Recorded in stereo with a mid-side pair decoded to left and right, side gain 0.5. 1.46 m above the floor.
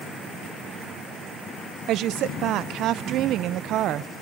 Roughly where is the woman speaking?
Right.